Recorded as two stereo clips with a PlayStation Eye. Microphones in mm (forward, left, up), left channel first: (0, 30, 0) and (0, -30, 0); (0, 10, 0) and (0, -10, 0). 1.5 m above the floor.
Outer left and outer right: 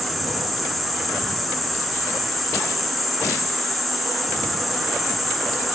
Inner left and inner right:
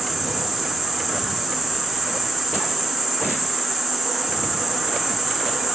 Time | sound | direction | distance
0.0 | an insect | centre (ahead or behind) | 1.4 m